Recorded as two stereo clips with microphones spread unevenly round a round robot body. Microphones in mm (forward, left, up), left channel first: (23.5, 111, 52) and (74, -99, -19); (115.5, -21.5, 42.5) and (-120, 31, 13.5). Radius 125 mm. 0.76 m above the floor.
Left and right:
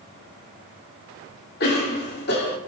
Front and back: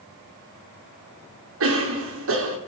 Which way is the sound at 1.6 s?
155° left.